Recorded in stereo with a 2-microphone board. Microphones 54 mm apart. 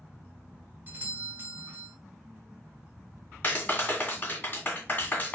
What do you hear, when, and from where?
0.9 s a doorbell: 35° right (ahead or behind), 1.6 m
3.4 s a clap: 40° left (ahead or behind), 1.8 m